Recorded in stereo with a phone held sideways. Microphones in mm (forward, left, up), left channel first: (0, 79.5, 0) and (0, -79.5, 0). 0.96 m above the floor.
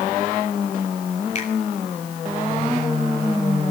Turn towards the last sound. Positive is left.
turn(degrees=45)  # may be behind; listen again after turning